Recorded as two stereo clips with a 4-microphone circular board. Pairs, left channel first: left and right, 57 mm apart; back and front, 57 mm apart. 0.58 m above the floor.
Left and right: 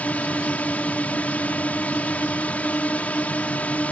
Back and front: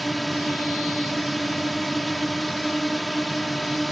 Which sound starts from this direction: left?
A drone, at 0.0 s.